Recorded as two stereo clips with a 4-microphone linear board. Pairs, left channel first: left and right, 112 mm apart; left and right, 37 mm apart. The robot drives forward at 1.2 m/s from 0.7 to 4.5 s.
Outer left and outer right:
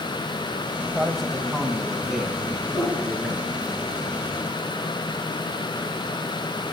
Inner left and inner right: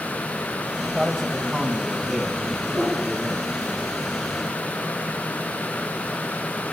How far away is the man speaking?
About 1.1 m.